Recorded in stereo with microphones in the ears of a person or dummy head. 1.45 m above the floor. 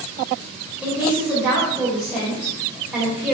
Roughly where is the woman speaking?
Centre.